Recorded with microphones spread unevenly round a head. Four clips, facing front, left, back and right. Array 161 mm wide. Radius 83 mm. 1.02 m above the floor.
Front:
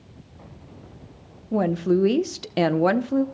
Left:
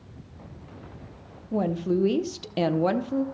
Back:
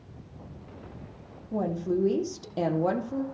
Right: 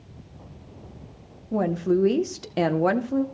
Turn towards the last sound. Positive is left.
turn(degrees=-25)